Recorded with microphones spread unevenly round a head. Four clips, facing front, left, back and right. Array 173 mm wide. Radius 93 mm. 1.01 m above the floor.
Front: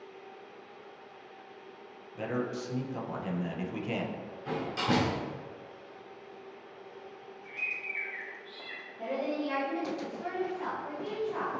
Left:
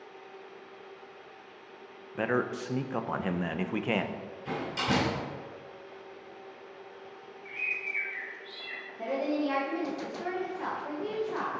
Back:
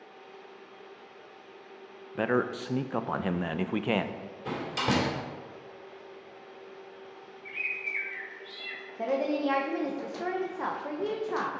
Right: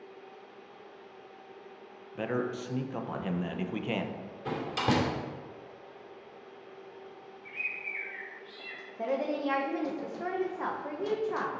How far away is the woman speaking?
About 0.9 m.